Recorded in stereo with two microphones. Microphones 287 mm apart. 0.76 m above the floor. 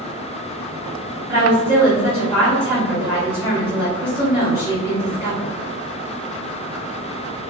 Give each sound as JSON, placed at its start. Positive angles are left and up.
{"t": 1.3, "sound": "a woman speaking", "side_deg": -10, "distance_m": 1.6}